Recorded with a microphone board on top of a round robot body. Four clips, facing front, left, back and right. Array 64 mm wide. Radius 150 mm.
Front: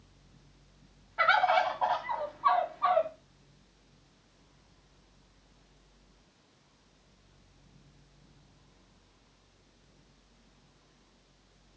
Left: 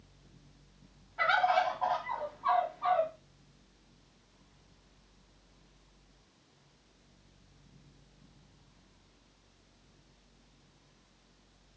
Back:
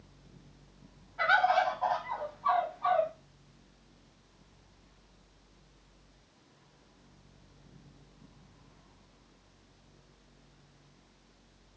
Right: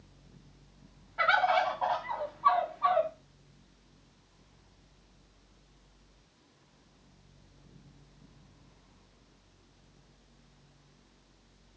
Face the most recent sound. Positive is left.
turn(degrees=-30)